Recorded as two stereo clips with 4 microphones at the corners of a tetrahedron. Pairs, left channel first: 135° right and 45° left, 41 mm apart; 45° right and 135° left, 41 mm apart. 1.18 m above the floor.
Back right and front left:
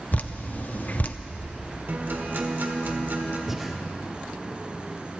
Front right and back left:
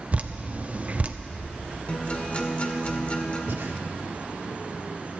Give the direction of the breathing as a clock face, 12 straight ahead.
8 o'clock.